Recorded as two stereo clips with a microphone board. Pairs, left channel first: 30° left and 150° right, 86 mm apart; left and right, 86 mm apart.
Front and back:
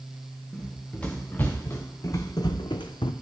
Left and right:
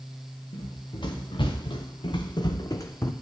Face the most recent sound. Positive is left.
turn(degrees=30)